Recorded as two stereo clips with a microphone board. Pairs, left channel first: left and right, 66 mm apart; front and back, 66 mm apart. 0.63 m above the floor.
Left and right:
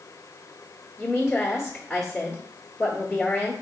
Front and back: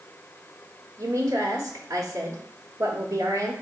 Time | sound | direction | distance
1.0 | a woman speaking | straight behind | 1.0 m